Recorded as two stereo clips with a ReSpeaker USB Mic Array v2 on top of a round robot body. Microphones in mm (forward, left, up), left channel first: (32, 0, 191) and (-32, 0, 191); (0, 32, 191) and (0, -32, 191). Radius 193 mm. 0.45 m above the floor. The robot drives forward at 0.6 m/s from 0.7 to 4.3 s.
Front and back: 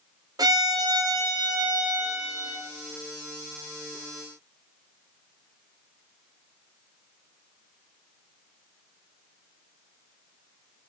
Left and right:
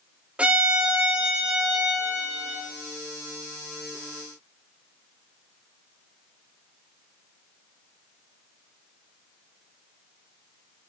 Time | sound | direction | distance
0.4 | a violin | 160° right | 0.8 m